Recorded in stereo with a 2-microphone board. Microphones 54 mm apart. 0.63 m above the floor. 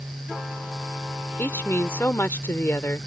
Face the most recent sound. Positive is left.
turn(degrees=45)  # may be behind; listen again after turning